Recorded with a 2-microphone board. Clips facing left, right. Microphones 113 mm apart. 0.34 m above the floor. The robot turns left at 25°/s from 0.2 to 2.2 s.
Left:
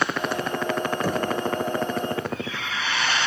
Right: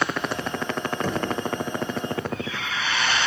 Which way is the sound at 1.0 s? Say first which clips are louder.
Left 1 dB; 5° left (ahead or behind).